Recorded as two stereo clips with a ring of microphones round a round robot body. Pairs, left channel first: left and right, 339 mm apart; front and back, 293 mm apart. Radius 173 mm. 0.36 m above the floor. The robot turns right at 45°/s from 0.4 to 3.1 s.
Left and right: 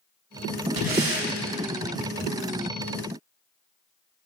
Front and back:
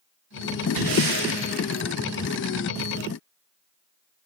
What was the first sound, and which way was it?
Breathing, 160° right.